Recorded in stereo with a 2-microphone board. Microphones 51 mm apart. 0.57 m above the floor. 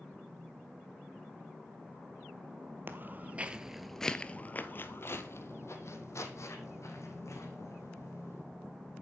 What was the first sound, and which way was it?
Footsteps, 45° right (ahead or behind).